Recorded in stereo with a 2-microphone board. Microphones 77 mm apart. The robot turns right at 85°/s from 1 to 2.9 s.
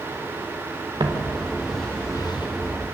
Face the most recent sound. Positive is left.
turn(degrees=40)  # may be behind; listen again after turning